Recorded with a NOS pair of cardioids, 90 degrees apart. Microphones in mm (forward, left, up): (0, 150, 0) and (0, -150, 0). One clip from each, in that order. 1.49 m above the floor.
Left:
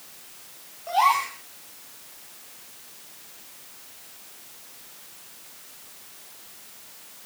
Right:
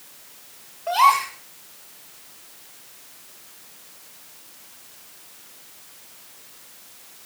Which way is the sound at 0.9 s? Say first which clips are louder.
Right 4 dB; 60° right.